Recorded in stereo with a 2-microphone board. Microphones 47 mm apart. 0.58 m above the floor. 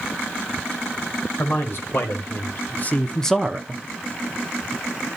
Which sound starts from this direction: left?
A man speaking, at 1.4 s.